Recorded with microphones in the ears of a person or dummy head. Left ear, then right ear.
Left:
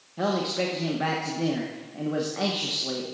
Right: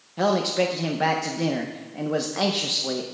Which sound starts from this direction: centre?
A man speaking, at 0.2 s.